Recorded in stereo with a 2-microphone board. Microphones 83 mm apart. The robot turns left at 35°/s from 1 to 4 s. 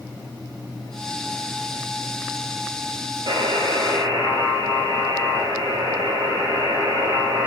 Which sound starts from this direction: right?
A buzzer, at 3.3 s.